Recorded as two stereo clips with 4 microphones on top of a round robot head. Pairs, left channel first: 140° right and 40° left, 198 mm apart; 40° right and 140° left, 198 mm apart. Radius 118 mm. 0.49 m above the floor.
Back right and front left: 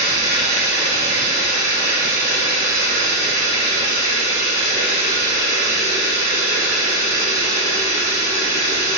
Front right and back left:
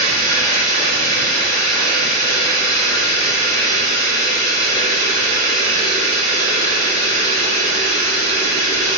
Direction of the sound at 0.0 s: 30° left.